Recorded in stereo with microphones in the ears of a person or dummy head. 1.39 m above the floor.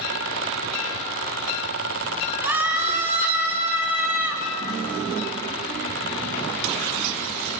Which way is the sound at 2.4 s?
10° right (ahead or behind).